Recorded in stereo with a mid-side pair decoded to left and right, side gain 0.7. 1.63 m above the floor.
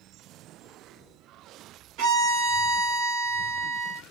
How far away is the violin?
About 1.7 m.